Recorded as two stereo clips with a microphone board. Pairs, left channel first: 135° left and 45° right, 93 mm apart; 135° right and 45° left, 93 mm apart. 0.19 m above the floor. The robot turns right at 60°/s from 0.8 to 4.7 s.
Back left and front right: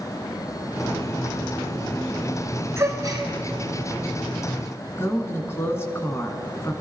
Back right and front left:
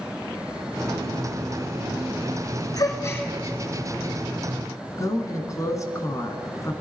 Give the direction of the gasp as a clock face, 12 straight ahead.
3 o'clock.